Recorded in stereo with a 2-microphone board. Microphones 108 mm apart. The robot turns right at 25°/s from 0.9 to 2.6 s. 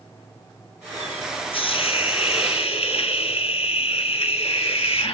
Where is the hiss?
60° left (ahead or behind), 0.9 m; by 5.1 s 65° left (ahead or behind), 0.9 m.